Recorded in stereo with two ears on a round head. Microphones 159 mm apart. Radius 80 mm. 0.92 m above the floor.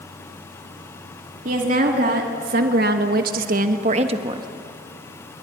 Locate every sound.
1.4 s a woman speaking: 50° right (ahead or behind), 2.5 m; by 4.5 s 25° right (ahead or behind), 1.5 m